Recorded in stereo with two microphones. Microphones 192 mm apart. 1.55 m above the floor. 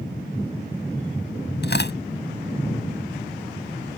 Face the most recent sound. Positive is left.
turn(degrees=65)  # may be behind; listen again after turning